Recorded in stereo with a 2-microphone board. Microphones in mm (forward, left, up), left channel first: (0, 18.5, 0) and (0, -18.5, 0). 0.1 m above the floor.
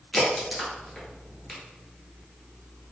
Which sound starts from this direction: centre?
A crack, at 0.1 s.